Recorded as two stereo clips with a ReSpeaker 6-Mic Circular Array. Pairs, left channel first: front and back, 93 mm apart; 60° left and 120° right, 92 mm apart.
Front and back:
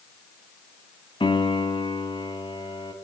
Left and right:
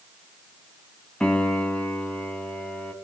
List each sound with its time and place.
1.2 s a piano: 20° right, 2.5 m